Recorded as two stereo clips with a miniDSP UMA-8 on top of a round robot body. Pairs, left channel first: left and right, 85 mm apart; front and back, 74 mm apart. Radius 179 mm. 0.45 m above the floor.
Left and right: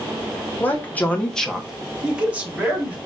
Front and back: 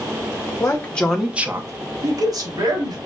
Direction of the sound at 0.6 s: 35° left.